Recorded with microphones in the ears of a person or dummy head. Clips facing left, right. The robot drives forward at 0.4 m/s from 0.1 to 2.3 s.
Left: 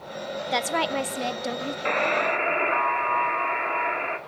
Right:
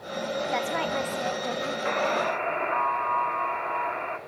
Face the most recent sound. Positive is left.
turn(degrees=35)  # may be behind; listen again after turning